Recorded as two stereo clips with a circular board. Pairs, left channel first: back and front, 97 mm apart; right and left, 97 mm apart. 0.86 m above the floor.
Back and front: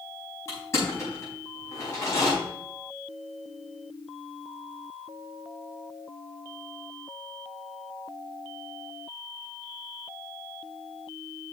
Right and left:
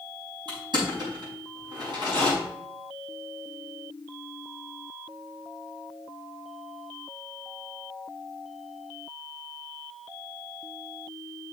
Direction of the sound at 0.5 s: 120° left.